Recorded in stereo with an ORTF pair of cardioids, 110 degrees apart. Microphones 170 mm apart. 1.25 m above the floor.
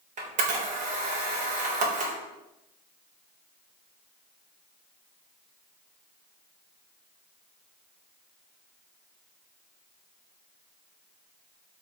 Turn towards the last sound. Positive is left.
turn(degrees=-45)